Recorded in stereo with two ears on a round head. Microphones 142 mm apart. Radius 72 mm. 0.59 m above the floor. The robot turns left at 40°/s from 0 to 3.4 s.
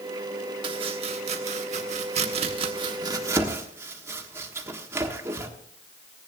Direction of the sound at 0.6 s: 30° right (ahead or behind).